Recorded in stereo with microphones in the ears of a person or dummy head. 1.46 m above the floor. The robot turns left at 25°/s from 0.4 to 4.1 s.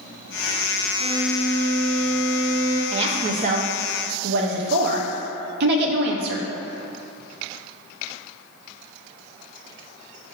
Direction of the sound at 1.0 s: 25° left.